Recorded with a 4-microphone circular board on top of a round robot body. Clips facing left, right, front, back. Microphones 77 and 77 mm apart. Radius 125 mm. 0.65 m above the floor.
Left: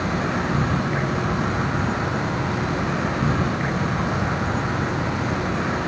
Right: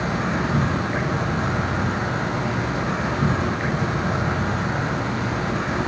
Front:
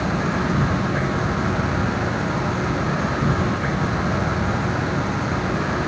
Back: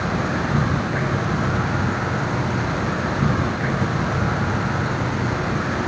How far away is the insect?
About 5 m.